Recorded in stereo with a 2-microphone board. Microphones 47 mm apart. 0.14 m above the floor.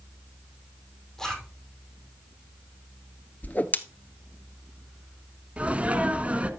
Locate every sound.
1.2 s a zipper: 10° left (ahead or behind), 4 m
3.4 s a whoosh: 40° left (ahead or behind), 0.8 m
5.6 s a sneeze: 30° right (ahead or behind), 1.4 m